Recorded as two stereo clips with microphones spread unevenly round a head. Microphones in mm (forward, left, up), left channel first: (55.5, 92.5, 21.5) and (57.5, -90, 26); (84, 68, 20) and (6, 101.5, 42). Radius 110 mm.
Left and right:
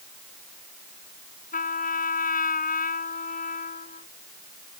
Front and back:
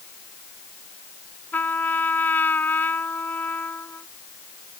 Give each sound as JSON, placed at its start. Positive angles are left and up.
{"t": 1.5, "sound": "a trumpet", "azimuth_deg": 45}